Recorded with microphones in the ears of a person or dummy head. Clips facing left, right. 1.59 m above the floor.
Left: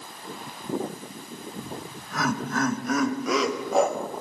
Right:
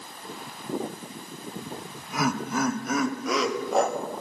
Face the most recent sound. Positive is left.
turn(degrees=10)  # may be behind; listen again after turning